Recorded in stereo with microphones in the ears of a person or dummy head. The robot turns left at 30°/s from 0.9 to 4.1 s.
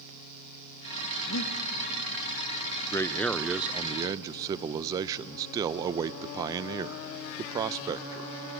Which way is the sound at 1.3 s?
75° left (ahead or behind).